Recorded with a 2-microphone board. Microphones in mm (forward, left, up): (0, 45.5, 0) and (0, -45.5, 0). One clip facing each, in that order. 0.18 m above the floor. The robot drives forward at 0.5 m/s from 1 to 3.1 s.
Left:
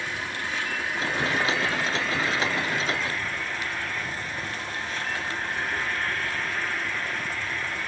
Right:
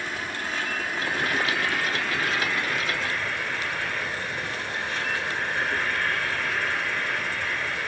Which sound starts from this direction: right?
An insect, at 0.0 s.